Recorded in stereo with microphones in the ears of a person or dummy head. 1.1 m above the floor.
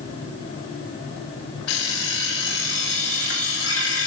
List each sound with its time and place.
1.7 s an alarm clock: 65° left (ahead or behind), 1.3 m